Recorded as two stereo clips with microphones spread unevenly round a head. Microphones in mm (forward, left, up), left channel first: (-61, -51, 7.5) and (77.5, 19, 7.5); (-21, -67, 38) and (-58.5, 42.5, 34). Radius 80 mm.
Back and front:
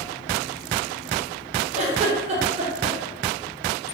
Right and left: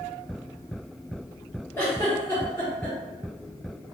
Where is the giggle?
Straight ahead, 0.6 m.